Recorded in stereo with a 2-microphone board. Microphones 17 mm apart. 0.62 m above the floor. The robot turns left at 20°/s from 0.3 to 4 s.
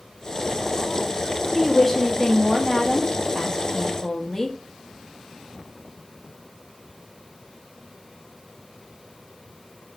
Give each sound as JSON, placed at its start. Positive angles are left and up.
{"t": 1.6, "sound": "a woman speaking", "side_deg": 10, "distance_m": 0.6}